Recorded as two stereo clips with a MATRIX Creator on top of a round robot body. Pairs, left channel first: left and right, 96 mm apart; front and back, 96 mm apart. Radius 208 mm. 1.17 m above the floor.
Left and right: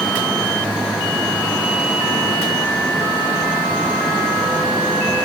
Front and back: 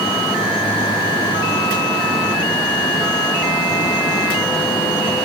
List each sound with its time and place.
Only background noise.